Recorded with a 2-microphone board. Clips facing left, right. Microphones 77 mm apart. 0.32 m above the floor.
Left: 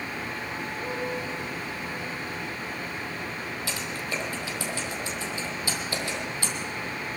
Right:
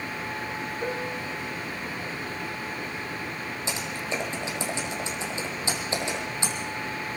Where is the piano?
80° right, 4 m.